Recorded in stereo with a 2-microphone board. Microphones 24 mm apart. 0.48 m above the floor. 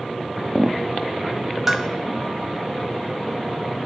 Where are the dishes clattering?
15° right (ahead or behind), 1.5 m.